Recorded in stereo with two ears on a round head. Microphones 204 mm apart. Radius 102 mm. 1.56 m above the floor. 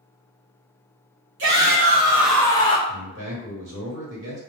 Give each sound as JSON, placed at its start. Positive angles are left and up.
{"t": 1.4, "sound": "a shout", "side_deg": -60, "distance_m": 0.7}
{"t": 2.9, "sound": "a man speaking", "side_deg": -60, "distance_m": 1.1}